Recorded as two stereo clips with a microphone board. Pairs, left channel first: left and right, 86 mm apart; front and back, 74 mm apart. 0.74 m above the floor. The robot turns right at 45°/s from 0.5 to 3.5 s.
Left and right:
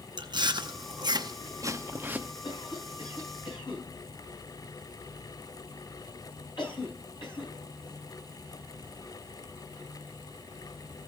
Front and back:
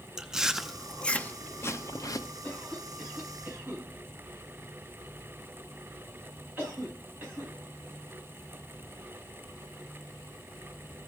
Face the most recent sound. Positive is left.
turn(degrees=120)